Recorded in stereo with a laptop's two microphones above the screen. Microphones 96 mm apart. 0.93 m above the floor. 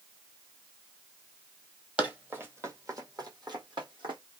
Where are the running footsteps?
10° right (ahead or behind), 1.1 m; by 4.2 s 60° right (ahead or behind), 2.0 m.